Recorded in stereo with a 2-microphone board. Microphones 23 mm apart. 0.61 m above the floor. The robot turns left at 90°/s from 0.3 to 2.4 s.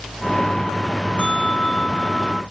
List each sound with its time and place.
1.2 s a bell: 115° left; by 2.4 s 5° left